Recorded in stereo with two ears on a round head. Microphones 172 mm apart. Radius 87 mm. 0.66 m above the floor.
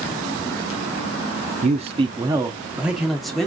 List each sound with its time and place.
1.6 s a man speaking: 40° right (ahead or behind), 0.6 m; by 3.5 s 5° left (ahead or behind), 1.2 m